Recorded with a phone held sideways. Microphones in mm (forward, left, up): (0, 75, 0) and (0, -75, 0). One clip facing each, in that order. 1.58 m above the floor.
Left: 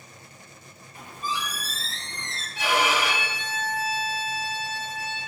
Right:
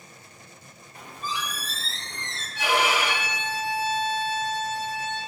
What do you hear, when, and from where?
0.9 s a squeak: 40° right (ahead or behind), 1.3 m
2.5 s a violin: 30° left (ahead or behind), 1.6 m